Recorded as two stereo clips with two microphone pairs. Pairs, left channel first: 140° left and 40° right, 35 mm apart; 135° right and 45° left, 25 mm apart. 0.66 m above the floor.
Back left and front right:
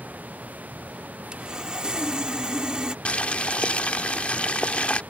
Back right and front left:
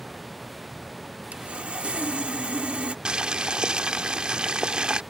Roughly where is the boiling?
Left.